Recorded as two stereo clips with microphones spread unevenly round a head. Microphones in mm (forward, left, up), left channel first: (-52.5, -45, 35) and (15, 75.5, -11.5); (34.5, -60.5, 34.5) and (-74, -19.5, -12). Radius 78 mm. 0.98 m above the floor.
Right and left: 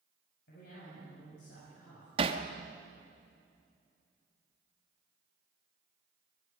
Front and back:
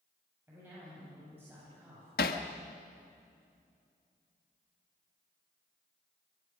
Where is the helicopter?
I don't hear a helicopter.